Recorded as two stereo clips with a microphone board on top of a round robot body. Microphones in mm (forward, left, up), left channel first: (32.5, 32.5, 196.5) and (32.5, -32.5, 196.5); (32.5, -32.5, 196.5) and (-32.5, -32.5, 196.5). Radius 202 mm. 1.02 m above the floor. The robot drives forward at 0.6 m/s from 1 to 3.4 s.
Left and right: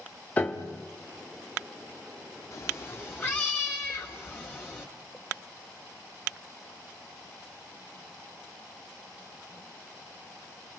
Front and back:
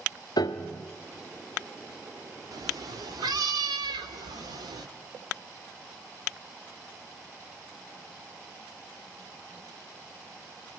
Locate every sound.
0.4 s a piano: 25° left, 0.7 m
2.5 s a cat meowing: 145° left, 1.1 m; by 4.9 s 155° left, 1.5 m